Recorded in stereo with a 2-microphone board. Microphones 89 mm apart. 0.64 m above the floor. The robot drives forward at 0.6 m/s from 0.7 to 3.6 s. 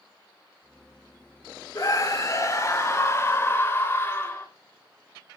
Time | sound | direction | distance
1.8 | a scream | 40° left (ahead or behind) | 1.7 m